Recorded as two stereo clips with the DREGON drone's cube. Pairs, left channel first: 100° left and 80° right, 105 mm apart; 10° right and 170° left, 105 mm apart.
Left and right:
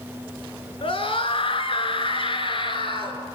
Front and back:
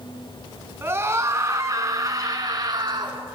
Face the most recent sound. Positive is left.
turn(degrees=130)